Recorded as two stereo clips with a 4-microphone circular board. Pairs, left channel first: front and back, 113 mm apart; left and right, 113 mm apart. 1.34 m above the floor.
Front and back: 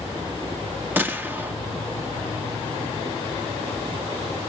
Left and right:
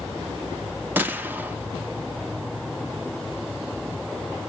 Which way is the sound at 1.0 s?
135° right.